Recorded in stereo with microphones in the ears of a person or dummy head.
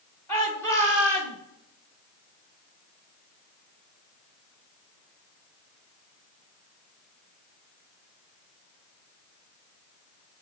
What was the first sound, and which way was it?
A shout, 15° left (ahead or behind).